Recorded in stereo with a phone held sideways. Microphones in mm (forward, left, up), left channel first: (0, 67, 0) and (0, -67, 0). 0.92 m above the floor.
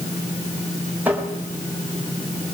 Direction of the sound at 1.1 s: 10° right (ahead or behind).